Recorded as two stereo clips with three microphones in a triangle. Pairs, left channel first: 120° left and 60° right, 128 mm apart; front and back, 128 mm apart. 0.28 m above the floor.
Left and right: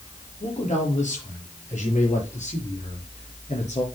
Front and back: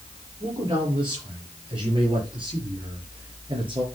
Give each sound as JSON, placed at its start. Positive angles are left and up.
{"t": 0.4, "sound": "a man speaking", "azimuth_deg": 130, "distance_m": 6.0}